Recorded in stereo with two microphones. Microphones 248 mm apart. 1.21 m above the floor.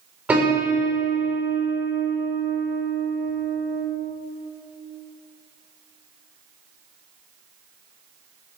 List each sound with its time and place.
0.3 s a piano: 5° right (ahead or behind), 5 m